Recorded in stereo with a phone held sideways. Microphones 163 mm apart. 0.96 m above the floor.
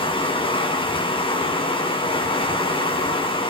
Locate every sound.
0.0 s running water: 30° left (ahead or behind), 2.5 m